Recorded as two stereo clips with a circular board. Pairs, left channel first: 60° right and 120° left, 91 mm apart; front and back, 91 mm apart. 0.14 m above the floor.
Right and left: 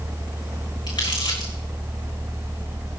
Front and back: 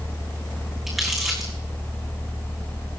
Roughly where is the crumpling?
Right.